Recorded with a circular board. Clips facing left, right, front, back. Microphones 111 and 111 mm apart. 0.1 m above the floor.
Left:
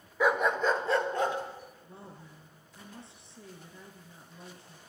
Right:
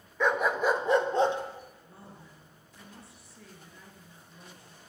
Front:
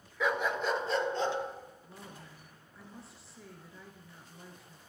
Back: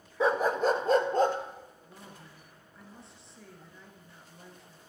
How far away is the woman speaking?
About 1.2 m.